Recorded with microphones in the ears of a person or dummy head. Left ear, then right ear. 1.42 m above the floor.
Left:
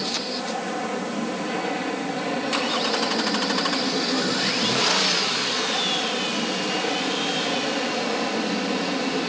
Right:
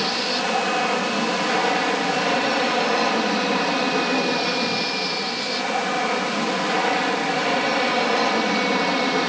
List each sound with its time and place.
0.0 s an aircraft: 40° right (ahead or behind)